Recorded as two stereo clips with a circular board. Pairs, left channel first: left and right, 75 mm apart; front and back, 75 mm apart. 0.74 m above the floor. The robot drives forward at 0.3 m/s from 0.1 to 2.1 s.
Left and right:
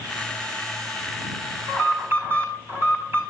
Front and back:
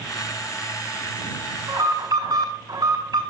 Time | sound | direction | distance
1.7 | an alarm | 145° right | 4.5 m